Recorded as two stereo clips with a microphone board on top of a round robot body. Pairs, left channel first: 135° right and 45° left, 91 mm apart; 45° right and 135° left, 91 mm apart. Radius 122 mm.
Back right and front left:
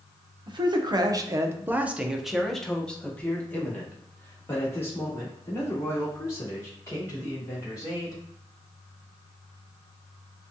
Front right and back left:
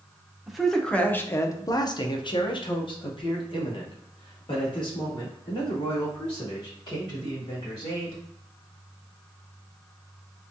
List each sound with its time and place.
0.5 s a man speaking: 50° left, 0.9 m; by 8.2 s 80° right, 4 m